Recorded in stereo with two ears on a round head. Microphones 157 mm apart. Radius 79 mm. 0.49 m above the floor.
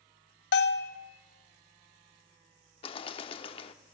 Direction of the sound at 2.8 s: 30° left (ahead or behind).